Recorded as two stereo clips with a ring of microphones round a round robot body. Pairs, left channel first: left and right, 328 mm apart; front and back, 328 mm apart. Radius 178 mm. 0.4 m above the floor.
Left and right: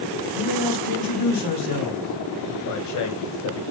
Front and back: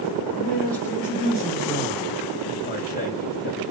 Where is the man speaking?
85° left, 3 m; by 3.6 s 55° left, 2 m.